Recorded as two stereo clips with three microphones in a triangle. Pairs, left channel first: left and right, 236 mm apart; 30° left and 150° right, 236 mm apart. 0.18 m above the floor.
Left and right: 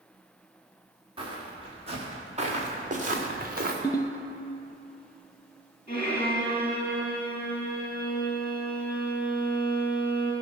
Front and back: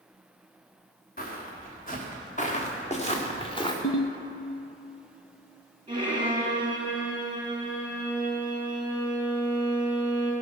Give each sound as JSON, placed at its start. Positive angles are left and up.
{"t": 1.2, "sound": "footsteps", "azimuth_deg": -25, "distance_m": 4.0}
{"t": 3.8, "sound": "a ringtone", "azimuth_deg": 20, "distance_m": 1.0}
{"t": 5.9, "sound": "a violin", "azimuth_deg": 140, "distance_m": 3.5}